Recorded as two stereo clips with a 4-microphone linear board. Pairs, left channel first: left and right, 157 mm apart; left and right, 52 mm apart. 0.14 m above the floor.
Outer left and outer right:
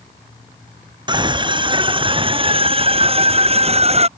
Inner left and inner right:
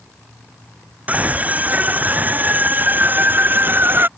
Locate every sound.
1.1 s a scream: 30° right (ahead or behind); by 4.1 s 40° right (ahead or behind)